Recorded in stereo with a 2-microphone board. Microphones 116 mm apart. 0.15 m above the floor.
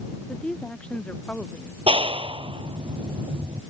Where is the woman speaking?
10° left (ahead or behind).